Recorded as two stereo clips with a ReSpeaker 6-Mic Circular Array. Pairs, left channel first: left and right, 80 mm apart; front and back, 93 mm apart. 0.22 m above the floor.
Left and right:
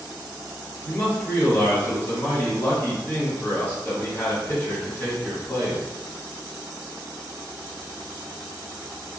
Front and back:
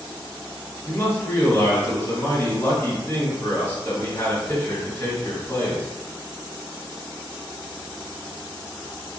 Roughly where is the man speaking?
Ahead left.